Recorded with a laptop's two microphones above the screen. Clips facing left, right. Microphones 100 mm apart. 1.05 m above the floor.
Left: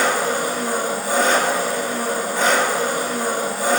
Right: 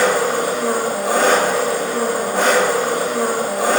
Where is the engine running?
65° right (ahead or behind), 1.0 m.